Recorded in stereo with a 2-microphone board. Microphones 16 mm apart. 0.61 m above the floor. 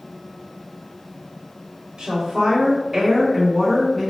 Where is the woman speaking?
35° right (ahead or behind), 1.2 m; by 4.1 s 10° left (ahead or behind), 1.1 m.